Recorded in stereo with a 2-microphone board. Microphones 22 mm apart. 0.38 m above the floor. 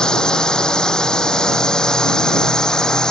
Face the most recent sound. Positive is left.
turn(degrees=35)  # may be behind; listen again after turning